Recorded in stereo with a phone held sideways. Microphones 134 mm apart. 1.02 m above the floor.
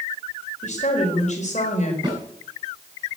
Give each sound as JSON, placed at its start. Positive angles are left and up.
{"t": 0.6, "sound": "a woman speaking", "side_deg": 65, "distance_m": 4.0}
{"t": 2.0, "sound": "a snare drum", "side_deg": -35, "distance_m": 8.5}